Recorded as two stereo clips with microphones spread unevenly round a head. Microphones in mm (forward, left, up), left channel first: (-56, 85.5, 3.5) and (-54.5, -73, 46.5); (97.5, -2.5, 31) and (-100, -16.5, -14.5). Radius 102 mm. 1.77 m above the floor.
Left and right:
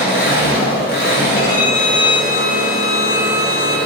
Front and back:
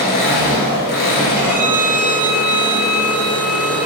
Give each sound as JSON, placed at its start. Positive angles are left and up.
{"t": 0.0, "sound": "an engine running", "azimuth_deg": 35, "distance_m": 1.0}
{"t": 1.4, "sound": "a violin", "azimuth_deg": 100, "distance_m": 1.4}